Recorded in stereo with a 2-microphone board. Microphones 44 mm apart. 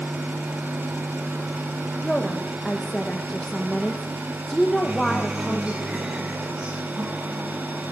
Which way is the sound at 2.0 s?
5° left (ahead or behind).